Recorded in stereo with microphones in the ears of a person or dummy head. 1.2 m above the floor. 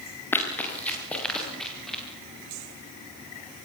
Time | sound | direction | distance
0.3 | running footsteps | 15° left (ahead or behind) | 6.5 m